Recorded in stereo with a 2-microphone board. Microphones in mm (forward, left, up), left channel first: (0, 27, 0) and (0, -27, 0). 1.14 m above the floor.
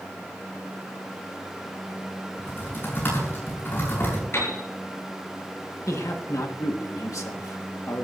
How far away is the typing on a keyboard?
About 8.5 m.